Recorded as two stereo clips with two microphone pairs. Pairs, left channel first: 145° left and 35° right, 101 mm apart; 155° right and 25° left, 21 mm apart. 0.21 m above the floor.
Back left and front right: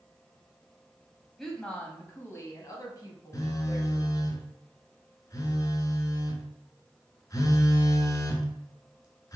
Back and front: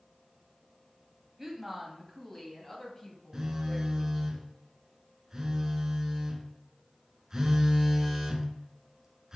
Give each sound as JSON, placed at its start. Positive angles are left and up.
{"t": 1.4, "sound": "a woman speaking", "azimuth_deg": 55, "distance_m": 1.0}
{"t": 3.3, "sound": "a phone buzzing", "azimuth_deg": 90, "distance_m": 0.8}